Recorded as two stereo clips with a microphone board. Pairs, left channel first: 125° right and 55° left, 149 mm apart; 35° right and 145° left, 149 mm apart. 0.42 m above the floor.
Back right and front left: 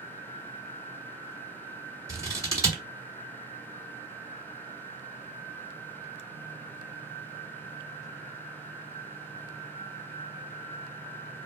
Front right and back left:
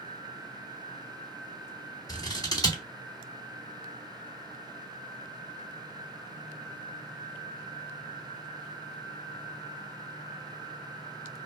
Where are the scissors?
5° left, 1.2 m.